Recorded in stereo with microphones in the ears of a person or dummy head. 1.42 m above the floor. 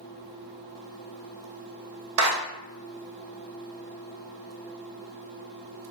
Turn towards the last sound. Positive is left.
turn(degrees=-80)